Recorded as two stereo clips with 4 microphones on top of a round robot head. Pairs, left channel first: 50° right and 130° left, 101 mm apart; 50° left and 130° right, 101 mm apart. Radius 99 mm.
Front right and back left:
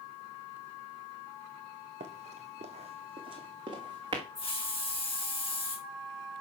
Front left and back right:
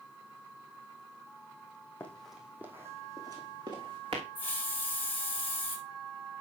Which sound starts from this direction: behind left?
Running footsteps, at 2.0 s.